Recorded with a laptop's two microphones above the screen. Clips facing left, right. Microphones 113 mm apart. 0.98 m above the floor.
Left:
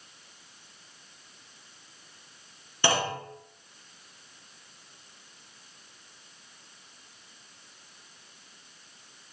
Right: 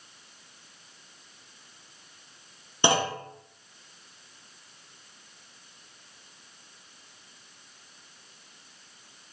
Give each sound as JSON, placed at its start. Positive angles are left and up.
{"t": 2.8, "sound": "a clunk", "side_deg": -20, "distance_m": 0.7}